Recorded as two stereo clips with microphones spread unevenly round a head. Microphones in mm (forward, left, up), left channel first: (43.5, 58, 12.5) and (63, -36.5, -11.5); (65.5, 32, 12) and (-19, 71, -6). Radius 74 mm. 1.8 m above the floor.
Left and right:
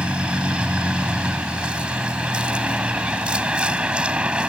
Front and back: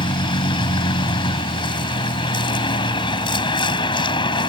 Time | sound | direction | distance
0.0 | a vehicle | 5° left | ?